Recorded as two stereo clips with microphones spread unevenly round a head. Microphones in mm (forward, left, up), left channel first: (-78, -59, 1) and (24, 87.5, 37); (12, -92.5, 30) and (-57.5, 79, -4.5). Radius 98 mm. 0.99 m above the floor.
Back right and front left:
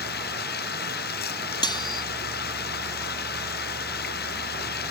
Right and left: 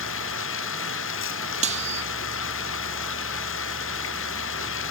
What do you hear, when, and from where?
0.0 s running water: 80° right
1.6 s cutlery clinking: 165° left